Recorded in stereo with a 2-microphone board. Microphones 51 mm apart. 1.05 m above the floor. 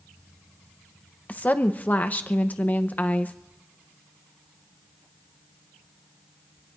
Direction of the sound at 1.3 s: 35° left (ahead or behind).